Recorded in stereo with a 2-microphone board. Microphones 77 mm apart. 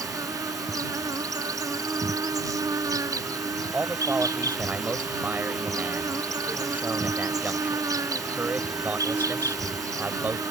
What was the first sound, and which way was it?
An insect, 50° right (ahead or behind).